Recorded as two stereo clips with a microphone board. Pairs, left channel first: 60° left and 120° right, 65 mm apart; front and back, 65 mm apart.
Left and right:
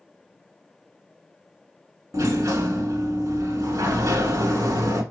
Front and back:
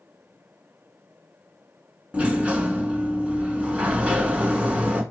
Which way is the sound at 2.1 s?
110° right.